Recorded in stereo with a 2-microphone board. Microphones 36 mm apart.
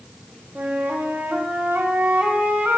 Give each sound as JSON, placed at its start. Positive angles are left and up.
{"t": 0.6, "sound": "a flute", "side_deg": -75, "distance_m": 1.3}